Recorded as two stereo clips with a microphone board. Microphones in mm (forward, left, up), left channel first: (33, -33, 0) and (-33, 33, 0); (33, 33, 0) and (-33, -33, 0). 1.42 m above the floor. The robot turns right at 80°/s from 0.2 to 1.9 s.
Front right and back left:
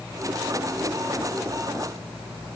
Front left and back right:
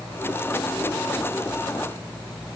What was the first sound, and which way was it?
Only background noise.